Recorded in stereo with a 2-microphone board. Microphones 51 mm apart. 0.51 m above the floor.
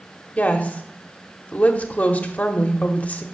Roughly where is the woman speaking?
Left.